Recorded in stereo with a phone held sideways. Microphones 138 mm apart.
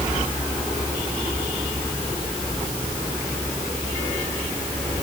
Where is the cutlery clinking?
I don't hear cutlery clinking.